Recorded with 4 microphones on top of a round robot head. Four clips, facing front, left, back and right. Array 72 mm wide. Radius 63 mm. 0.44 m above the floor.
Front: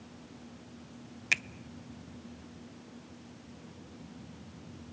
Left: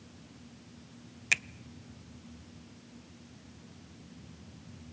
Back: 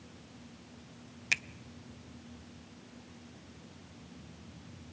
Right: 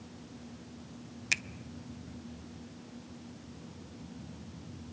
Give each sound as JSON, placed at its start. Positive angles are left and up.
{"t": 1.3, "sound": "a finger snap", "azimuth_deg": 50, "distance_m": 0.7}